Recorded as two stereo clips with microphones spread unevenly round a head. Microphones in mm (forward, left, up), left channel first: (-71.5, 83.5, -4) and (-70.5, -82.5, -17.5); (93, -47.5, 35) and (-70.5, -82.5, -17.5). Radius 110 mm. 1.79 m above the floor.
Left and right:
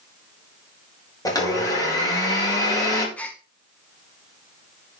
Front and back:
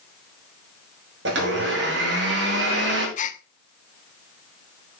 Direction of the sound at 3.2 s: 10° left.